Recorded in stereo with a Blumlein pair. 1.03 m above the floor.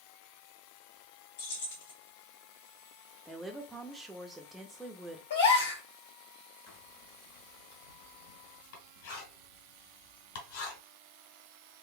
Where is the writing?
50° left, 2.5 m.